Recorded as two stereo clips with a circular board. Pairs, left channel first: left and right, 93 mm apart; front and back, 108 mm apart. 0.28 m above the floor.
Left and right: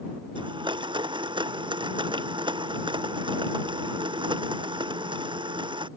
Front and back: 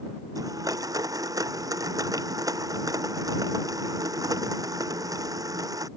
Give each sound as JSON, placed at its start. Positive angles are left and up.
{"t": 0.3, "sound": "a blender", "azimuth_deg": -125}